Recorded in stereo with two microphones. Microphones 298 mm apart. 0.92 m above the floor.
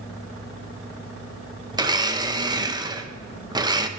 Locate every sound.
1.7 s a blender: 15° right (ahead or behind), 0.5 m